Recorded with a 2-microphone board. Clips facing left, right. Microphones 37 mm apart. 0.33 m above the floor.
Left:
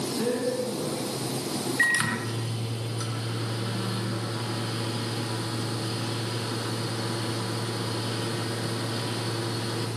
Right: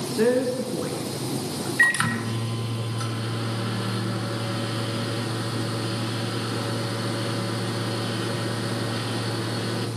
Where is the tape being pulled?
I don't hear tape being pulled.